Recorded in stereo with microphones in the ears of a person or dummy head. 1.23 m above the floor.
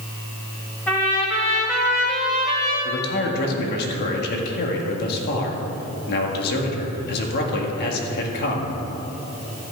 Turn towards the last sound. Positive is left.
turn(degrees=55)  # may be behind; listen again after turning